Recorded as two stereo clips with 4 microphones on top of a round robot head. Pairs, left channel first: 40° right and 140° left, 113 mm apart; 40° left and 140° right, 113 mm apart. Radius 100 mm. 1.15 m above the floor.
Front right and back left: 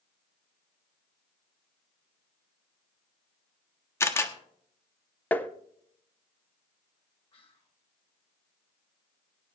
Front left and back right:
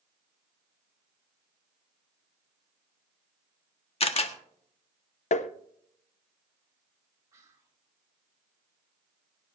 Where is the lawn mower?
I don't hear a lawn mower.